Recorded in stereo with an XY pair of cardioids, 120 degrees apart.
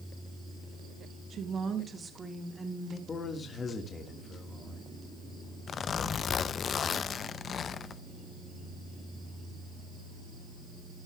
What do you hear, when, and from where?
1.3 s a woman speaking: 50° right, 1.4 m; by 3.0 s 10° right, 2.5 m
3.1 s a man speaking: 35° left, 1.7 m
5.7 s a zipper: 45° left, 0.6 m